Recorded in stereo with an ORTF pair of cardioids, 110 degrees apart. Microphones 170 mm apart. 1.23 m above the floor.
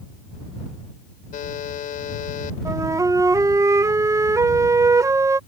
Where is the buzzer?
50° left.